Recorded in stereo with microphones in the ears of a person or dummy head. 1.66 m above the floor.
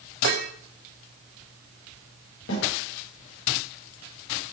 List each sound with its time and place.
0.2 s dishes clattering: 45° right (ahead or behind), 0.9 m
2.5 s a snare drum: 75° left (ahead or behind), 7 m